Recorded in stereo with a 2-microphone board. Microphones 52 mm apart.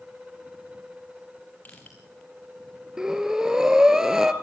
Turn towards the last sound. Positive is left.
turn(degrees=-10)  # may be behind; listen again after turning